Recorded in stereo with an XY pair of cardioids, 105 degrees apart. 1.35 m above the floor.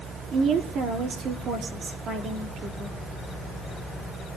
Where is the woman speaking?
65° right, 4 m.